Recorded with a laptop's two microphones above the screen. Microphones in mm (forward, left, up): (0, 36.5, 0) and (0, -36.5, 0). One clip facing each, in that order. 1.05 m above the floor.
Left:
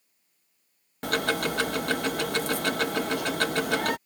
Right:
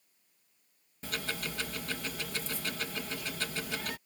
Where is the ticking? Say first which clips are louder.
Left 12 dB; 60° left (ahead or behind).